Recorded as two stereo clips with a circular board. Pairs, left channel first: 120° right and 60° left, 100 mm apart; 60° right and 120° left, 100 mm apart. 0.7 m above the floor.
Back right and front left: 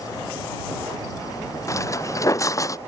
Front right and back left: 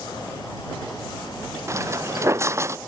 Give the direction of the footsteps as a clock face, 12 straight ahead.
6 o'clock.